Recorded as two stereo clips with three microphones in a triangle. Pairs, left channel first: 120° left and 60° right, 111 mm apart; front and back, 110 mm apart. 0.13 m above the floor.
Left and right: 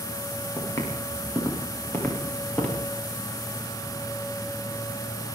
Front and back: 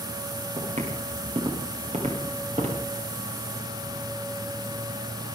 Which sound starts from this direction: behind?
Footsteps, at 0.6 s.